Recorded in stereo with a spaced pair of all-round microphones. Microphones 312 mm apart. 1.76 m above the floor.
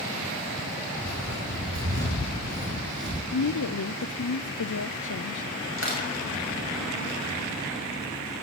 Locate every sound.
1.0 s footsteps: 40° right (ahead or behind), 4 m; by 3.2 s 35° right (ahead or behind), 3 m
3.3 s a woman speaking: 70° left (ahead or behind), 0.6 m
5.8 s crushing: 40° left (ahead or behind), 6 m